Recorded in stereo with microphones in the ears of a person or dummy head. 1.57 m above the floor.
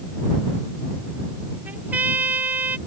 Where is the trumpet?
10° right (ahead or behind).